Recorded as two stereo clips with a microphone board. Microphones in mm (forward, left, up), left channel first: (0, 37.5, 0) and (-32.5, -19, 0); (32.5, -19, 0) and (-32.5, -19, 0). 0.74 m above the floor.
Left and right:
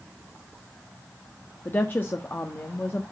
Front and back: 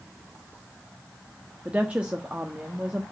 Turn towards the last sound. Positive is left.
turn(degrees=110)